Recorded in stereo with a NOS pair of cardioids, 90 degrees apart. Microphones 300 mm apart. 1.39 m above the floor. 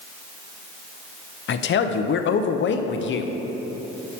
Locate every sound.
1.5 s a man speaking: 40° left, 0.5 m